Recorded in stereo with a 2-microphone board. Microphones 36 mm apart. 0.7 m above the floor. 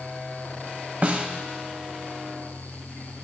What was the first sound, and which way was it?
A snare drum, 45° right (ahead or behind).